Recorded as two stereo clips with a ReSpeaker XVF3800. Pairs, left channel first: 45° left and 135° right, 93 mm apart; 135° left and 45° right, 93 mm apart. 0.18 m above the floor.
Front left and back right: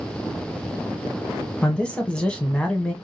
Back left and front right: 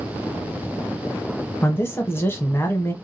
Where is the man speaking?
110° left, 1.1 m.